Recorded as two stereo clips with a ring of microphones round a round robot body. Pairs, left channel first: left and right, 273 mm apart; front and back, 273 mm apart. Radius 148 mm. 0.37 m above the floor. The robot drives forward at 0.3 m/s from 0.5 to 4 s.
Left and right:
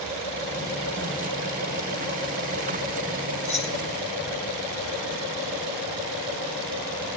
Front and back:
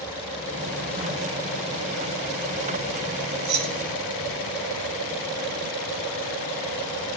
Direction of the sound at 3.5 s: 160° left.